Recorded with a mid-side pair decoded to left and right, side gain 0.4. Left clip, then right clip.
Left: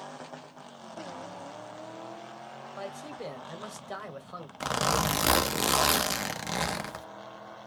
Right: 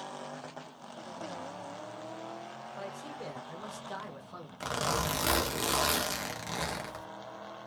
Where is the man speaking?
40° left, 1.2 m.